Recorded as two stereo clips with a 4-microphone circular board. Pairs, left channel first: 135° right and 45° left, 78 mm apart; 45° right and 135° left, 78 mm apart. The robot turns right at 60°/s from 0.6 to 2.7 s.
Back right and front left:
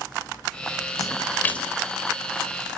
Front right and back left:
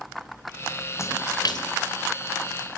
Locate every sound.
1.0 s a splash: 95° right, 3 m; by 1.7 s 55° right, 3 m